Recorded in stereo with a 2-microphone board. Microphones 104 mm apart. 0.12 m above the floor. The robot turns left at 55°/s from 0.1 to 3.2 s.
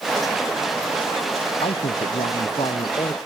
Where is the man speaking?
115° left; by 3.2 s 30° left.